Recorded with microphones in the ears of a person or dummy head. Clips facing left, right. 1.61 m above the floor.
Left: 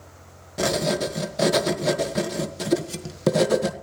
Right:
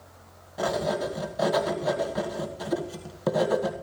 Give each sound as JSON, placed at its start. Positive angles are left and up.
{"t": 0.6, "sound": "writing", "side_deg": 35, "distance_m": 1.4}